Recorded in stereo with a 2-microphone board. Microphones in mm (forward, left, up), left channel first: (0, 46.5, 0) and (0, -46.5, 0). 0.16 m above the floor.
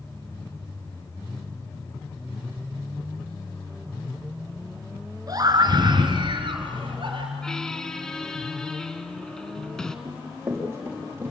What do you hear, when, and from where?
5.3 s a scream: 40° right (ahead or behind), 2 m; by 7.3 s 60° right (ahead or behind), 3.5 m
7.4 s a squeak: 5° left (ahead or behind), 1.0 m
10.1 s running footsteps: 25° right (ahead or behind), 6.5 m